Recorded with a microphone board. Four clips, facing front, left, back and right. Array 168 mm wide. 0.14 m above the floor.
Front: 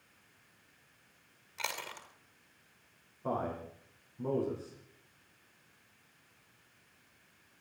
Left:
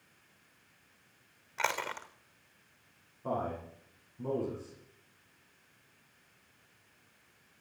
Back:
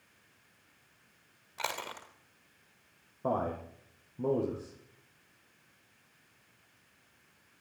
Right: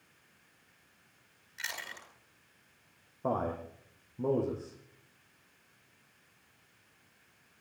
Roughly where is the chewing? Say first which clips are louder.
Left 10 dB, back 4 dB; left.